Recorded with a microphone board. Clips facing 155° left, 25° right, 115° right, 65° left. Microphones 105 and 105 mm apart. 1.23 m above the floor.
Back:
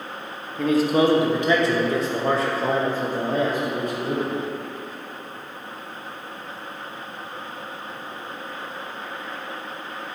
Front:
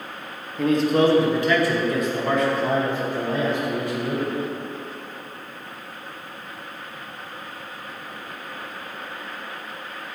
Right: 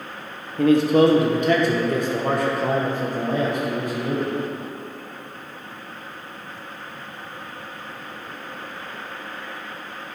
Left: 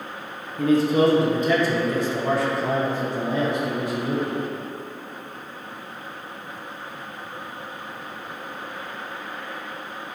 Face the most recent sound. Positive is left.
turn(degrees=-160)